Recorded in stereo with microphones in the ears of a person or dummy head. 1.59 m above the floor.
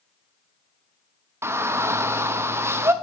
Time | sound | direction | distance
1.4 | a shout | 10° right (ahead or behind) | 0.7 m